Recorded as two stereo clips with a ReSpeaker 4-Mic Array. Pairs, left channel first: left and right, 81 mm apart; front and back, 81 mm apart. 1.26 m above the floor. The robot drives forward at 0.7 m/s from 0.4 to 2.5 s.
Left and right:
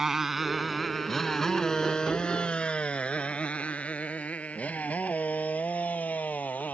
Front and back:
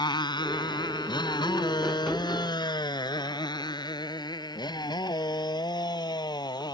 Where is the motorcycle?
5° right; by 6.7 s 20° left.